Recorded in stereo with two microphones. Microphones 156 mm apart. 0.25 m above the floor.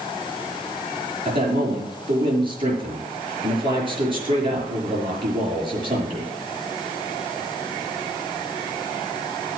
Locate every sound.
1.2 s a man speaking: 35° right (ahead or behind), 5.5 m